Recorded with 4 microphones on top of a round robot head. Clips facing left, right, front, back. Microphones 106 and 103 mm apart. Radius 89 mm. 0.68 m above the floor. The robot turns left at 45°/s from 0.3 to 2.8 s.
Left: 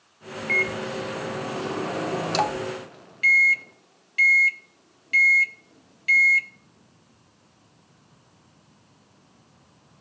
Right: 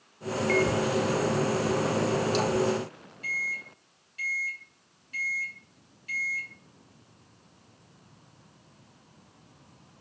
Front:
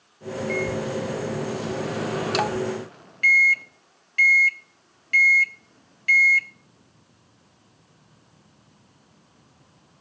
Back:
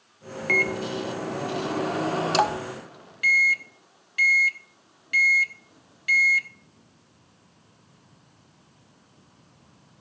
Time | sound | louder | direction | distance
0.5 | a microwave | right 4 dB, even | 155° right | 1.1 m